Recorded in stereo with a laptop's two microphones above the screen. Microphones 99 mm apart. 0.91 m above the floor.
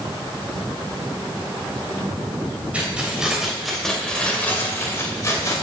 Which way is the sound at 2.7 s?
15° right (ahead or behind).